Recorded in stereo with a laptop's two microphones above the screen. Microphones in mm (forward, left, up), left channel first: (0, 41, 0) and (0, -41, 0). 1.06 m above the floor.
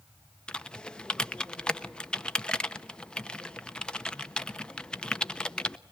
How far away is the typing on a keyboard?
About 0.9 m.